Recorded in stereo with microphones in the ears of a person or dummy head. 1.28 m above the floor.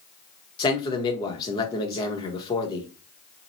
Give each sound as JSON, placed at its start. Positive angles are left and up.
{"t": 0.6, "sound": "a man speaking", "side_deg": 25, "distance_m": 1.1}